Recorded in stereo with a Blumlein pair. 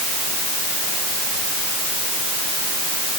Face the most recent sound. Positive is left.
No sound to turn to.